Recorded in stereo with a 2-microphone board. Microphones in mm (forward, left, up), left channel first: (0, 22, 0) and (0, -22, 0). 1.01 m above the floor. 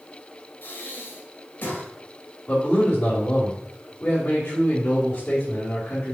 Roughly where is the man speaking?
Left.